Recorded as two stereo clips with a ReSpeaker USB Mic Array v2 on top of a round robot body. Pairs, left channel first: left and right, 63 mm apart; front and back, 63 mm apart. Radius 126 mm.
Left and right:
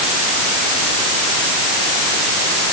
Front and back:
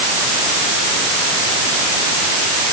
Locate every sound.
Only background noise.